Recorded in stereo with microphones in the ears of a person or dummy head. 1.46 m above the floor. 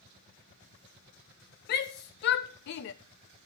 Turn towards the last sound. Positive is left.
turn(degrees=65)  # may be behind; listen again after turning